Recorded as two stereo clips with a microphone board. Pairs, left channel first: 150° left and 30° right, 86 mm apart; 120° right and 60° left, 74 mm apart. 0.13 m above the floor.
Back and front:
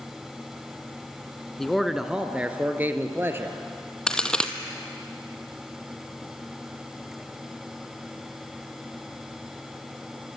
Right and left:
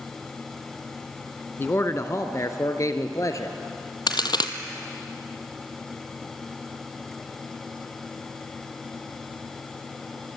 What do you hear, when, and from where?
1.6 s a man speaking: 125° right, 1.3 m; by 3.6 s 85° right, 2.5 m
4.1 s a crack: 130° right, 1.2 m